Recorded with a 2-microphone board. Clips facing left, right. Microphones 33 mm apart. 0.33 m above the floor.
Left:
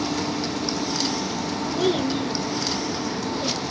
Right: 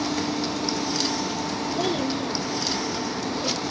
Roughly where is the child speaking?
Left.